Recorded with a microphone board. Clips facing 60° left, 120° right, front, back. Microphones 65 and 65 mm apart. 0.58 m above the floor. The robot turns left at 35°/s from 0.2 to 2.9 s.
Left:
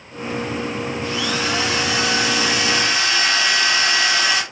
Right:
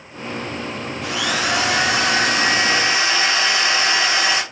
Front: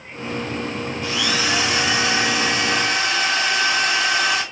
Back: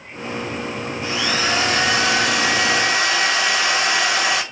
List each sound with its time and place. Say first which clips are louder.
1.0 s a drill: right 3 dB, back 1 dB; 115° right, 3 m; by 4.4 s straight behind, 3 m